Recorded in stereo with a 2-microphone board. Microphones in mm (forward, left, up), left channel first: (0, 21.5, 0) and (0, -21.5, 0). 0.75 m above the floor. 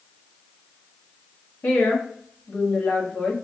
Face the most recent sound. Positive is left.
turn(degrees=45)  # may be behind; listen again after turning